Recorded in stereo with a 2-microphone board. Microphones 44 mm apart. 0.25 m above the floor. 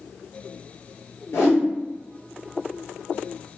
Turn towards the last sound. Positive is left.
turn(degrees=70)  # may be behind; listen again after turning